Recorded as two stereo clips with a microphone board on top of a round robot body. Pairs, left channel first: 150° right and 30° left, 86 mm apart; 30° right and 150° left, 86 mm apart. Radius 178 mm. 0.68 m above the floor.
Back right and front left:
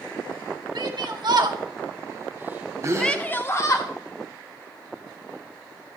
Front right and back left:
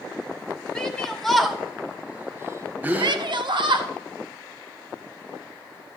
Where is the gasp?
80° left, 1.4 m.